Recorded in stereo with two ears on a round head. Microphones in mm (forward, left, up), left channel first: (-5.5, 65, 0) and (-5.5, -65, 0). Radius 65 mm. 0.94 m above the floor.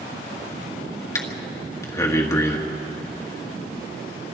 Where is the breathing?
20° left (ahead or behind), 1.4 m.